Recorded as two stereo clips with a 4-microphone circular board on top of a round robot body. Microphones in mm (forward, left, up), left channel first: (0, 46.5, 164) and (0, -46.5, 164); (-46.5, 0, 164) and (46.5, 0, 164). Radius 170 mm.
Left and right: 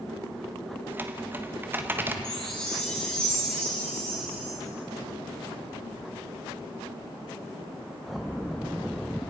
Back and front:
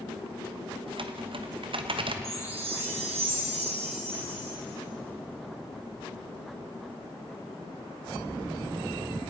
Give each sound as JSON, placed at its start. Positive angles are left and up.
{"t": 0.9, "sound": "typing on a keyboard", "azimuth_deg": -20, "distance_m": 1.4}
{"t": 2.2, "sound": "a chime", "azimuth_deg": 10, "distance_m": 3.0}